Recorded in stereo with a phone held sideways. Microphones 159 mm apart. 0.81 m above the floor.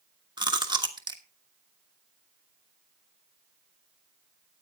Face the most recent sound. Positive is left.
turn(degrees=-25)  # may be behind; listen again after turning